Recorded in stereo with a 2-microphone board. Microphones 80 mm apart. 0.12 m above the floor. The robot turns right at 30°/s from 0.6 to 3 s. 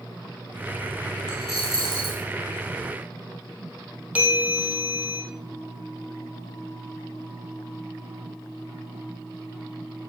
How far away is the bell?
About 3 m.